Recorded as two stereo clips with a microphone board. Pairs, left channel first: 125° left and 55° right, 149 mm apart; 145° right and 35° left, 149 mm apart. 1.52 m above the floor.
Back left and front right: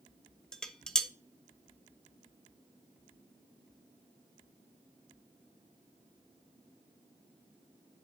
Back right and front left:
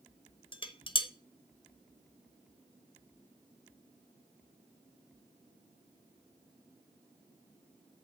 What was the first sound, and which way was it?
Dishes clattering, 155° right.